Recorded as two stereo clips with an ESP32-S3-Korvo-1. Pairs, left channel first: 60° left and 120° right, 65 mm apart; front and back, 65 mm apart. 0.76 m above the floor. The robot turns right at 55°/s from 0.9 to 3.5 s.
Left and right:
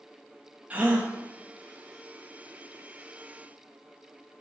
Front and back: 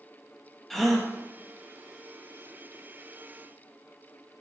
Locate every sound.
0.7 s a gasp: 85° right, 1.0 m; by 1.1 s 70° right, 1.0 m